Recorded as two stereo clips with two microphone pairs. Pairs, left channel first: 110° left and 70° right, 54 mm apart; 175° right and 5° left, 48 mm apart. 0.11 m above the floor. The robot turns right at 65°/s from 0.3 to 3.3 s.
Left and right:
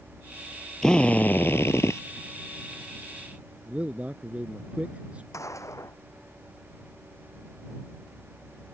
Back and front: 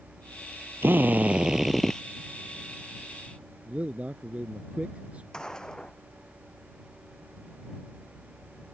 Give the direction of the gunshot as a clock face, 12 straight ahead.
8 o'clock.